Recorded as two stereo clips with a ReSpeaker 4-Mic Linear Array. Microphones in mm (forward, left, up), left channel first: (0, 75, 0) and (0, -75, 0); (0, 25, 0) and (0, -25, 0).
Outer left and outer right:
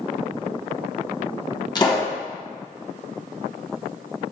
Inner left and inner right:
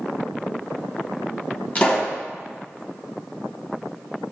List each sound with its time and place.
1.8 s a pop: 30° left (ahead or behind), 1.0 m